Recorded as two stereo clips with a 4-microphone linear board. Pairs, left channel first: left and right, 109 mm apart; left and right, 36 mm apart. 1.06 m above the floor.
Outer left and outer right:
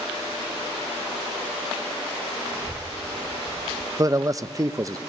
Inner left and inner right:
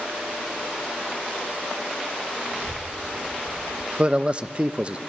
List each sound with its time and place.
2.5 s a child speaking: 25° right (ahead or behind), 4.5 m; by 3.9 s 45° right (ahead or behind), 3.5 m
4.0 s a man speaking: 30° right (ahead or behind), 0.6 m